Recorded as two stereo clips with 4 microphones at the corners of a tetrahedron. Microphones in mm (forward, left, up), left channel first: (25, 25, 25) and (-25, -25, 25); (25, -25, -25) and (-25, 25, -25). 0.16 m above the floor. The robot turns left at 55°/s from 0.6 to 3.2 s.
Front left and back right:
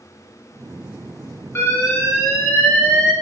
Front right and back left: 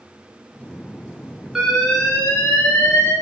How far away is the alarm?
About 1.5 m.